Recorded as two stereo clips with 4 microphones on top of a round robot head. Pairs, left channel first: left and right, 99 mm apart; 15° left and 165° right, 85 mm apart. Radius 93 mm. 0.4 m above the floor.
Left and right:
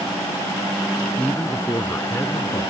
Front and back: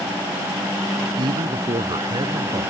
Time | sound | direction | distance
1.2 | a man speaking | 165° left | ?